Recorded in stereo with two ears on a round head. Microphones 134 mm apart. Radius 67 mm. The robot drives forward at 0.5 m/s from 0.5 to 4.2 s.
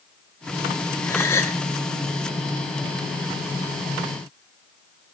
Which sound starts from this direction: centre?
A gasp, at 1.1 s.